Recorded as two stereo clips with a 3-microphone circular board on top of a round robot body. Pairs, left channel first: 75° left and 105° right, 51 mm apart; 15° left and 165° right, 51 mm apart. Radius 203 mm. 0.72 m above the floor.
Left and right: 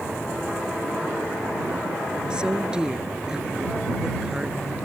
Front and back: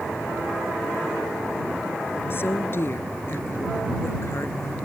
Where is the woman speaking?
30° right; by 4.8 s 25° right.